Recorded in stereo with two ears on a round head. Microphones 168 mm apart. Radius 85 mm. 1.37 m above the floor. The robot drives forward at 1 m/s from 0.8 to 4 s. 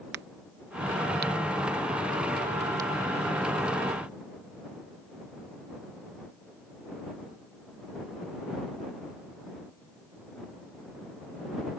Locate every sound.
0.1 s a crack: 60° right (ahead or behind); by 2.9 s 20° right (ahead or behind)